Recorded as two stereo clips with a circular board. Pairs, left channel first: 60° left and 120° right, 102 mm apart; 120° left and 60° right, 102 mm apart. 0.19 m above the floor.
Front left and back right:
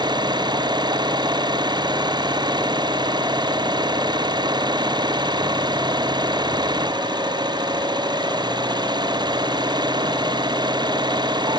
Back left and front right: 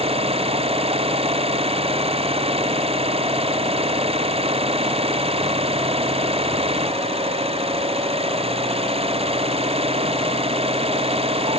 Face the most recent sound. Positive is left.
turn(degrees=-75)